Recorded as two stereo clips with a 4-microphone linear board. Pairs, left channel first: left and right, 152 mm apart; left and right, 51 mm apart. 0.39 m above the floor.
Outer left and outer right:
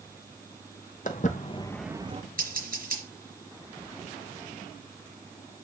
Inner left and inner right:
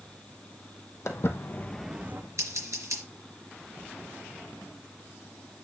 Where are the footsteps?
65° left (ahead or behind), 1.1 m; by 2.2 s 45° right (ahead or behind), 0.7 m.